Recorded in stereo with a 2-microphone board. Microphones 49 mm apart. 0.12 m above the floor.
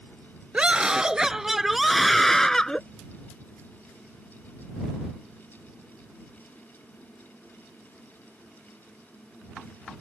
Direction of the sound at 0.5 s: 20° right (ahead or behind).